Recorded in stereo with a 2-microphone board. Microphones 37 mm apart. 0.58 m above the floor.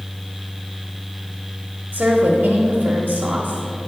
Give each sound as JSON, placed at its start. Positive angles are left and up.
{"t": 1.9, "sound": "a woman speaking", "side_deg": -45, "distance_m": 0.9}